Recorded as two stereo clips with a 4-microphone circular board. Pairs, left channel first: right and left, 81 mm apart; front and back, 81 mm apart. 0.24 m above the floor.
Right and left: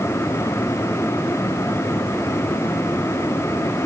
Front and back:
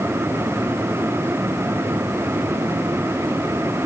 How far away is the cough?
No cough in this recording.